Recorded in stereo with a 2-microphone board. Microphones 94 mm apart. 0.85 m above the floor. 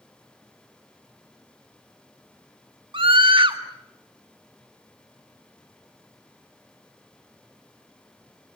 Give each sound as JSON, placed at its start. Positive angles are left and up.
{"t": 2.9, "sound": "a scream", "side_deg": -60, "distance_m": 1.8}